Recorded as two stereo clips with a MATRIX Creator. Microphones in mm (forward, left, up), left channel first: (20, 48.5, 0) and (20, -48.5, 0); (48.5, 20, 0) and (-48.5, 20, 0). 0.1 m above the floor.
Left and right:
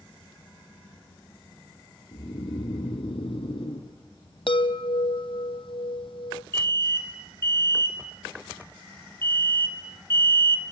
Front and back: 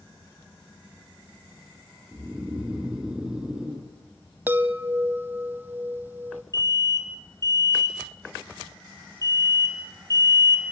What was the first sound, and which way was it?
Snoring, 95° left.